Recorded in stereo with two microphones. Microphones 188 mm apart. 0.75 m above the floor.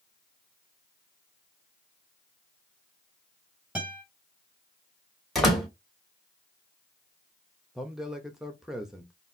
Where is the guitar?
5° right (ahead or behind), 2.5 m.